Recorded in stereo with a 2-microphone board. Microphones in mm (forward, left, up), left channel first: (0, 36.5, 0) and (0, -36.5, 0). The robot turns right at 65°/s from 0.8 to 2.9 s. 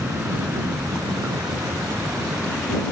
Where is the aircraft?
25° right (ahead or behind); by 2.9 s 15° left (ahead or behind).